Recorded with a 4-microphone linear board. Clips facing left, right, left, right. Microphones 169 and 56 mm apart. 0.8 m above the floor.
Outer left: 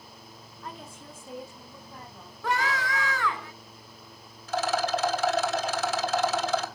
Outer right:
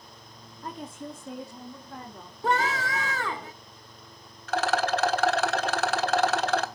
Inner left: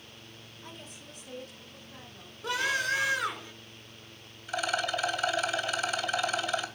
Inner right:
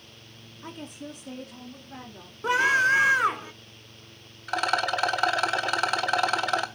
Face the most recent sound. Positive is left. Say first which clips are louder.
# outer right 1 dB, inner right 5 dB
turn(degrees=-65)  # may be behind; listen again after turning